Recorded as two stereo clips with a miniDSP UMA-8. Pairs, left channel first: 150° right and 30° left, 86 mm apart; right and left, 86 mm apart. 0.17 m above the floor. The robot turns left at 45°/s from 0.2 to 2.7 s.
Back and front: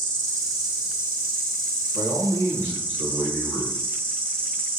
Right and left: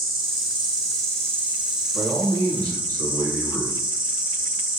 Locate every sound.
0.0 s an insect: 75° left, 1.6 m; by 4.8 s 35° right, 1.6 m
1.9 s a man speaking: 20° left, 1.5 m; by 3.8 s 15° right, 1.5 m